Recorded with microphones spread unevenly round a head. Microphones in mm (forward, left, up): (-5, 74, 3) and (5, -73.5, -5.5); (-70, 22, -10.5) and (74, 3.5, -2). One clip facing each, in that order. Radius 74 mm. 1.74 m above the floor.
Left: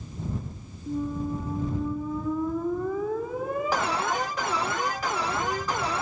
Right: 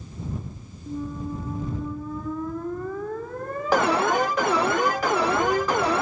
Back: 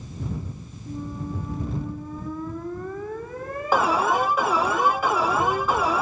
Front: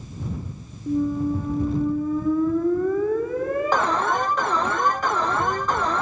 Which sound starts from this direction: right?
An alarm, at 3.7 s.